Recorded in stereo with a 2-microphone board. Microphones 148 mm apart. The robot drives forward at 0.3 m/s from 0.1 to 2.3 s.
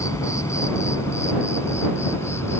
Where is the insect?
20° left (ahead or behind).